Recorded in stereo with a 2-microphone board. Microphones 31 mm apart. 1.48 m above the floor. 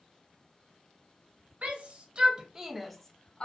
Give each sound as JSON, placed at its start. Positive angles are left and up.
{"t": 1.6, "sound": "a shout", "side_deg": -50, "distance_m": 1.0}